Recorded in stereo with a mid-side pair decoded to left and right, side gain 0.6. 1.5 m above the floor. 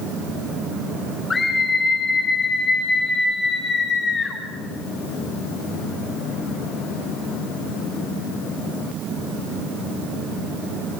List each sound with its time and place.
1.3 s a scream: 20° left, 7 m; by 4.4 s 30° left, 9 m